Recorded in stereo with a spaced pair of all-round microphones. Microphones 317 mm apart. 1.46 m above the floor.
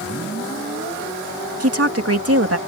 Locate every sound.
1.6 s a woman speaking: 55° right (ahead or behind)